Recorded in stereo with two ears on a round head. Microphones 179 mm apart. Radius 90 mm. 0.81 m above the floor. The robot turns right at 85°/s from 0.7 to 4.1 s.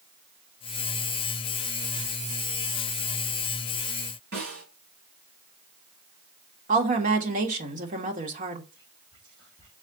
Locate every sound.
4.3 s a snare drum: 50° right (ahead or behind), 5 m
6.7 s a woman speaking: 40° right (ahead or behind), 1.7 m
8.7 s whispering: 25° right (ahead or behind), 5 m